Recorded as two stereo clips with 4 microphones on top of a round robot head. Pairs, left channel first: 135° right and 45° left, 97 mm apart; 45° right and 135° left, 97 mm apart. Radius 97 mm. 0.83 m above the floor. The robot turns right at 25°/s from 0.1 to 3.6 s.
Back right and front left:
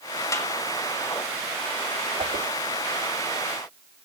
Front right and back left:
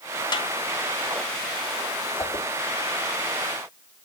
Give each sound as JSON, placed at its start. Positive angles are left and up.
{"t": 0.3, "sound": "a snare drum", "azimuth_deg": -80, "distance_m": 2.0}
{"t": 2.2, "sound": "a whoosh", "azimuth_deg": 15, "distance_m": 1.3}